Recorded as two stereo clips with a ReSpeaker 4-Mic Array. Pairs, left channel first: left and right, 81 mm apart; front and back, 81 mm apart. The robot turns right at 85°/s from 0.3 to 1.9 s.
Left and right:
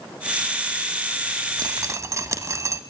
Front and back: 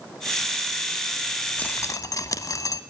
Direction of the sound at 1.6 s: 70° right.